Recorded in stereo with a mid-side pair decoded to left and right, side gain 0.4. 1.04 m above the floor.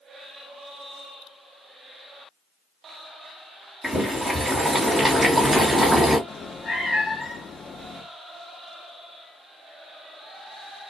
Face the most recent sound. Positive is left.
turn(degrees=50)